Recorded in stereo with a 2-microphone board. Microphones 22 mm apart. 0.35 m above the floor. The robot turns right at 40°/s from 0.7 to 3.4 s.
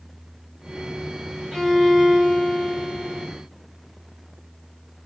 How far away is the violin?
About 1.6 m.